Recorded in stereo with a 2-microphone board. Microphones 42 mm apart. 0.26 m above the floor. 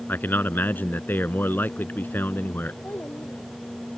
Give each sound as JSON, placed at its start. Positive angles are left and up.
{"t": 0.1, "sound": "a man speaking", "side_deg": 50}
{"t": 2.8, "sound": "a child speaking", "side_deg": 55}